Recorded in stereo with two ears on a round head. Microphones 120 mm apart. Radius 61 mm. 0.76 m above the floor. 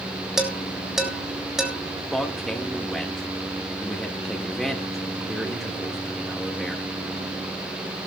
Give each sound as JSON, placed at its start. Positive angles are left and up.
{"t": 0.4, "sound": "dishes clattering", "side_deg": -5, "distance_m": 2.5}
{"t": 2.1, "sound": "a man speaking", "side_deg": 0, "distance_m": 1.6}